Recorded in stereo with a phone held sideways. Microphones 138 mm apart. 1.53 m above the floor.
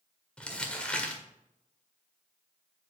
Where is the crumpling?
5° left (ahead or behind), 1.6 m.